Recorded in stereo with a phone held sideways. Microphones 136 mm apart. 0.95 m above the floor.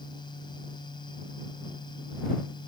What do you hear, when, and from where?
0.0 s a fan: 35° left (ahead or behind)